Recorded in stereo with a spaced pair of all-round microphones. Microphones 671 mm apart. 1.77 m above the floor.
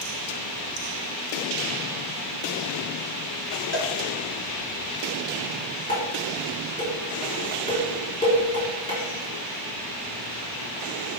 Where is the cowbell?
20° right (ahead or behind), 0.8 m.